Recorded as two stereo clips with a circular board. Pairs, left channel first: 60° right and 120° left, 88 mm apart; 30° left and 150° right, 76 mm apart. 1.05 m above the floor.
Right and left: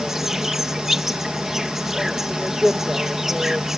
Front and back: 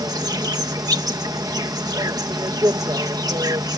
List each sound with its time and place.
0.0 s an insect: 155° right